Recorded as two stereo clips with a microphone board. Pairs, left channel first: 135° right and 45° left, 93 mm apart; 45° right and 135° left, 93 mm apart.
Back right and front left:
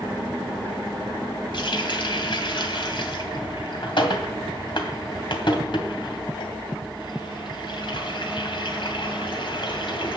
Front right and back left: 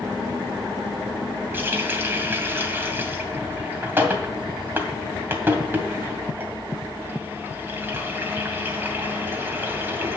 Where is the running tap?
160° right, 2 m.